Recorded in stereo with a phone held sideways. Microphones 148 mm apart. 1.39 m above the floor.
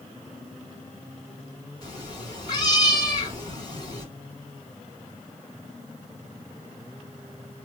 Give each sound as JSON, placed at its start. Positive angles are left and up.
{"t": 1.8, "sound": "a cat meowing", "side_deg": 30, "distance_m": 1.6}